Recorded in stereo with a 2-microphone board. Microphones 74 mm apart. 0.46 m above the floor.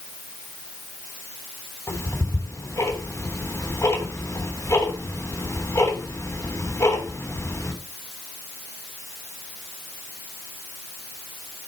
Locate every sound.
1.9 s ticking: 40° left (ahead or behind), 3 m